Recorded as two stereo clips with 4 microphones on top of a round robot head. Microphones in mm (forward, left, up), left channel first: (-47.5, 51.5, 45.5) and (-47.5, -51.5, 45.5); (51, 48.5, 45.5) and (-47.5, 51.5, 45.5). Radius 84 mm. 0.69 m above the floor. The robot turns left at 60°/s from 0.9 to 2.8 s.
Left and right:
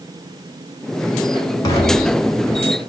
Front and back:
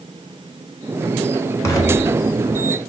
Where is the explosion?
45° left, 1.4 m; by 2.6 s 15° right, 1.4 m.